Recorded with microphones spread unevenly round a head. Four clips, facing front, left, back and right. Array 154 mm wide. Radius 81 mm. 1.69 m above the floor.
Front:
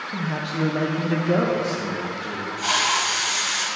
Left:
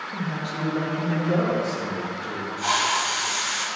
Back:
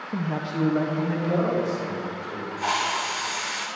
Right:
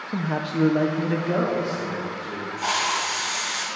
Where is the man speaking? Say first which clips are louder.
Right 6 dB, even; 110° right, 0.8 m; by 2.5 s 10° right, 2.5 m.